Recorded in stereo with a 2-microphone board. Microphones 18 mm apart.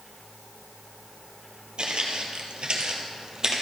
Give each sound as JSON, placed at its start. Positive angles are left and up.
{"t": 1.8, "sound": "footsteps", "side_deg": -50, "distance_m": 1.3}